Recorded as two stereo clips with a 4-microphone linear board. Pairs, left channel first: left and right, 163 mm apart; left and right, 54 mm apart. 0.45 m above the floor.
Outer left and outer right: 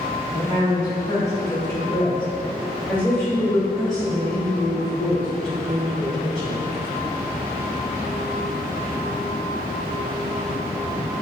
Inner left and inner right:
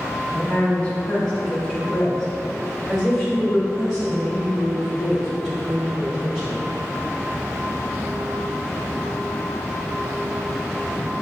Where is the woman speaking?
25° left (ahead or behind), 1.1 m; by 6.6 s centre (ahead or behind), 4 m.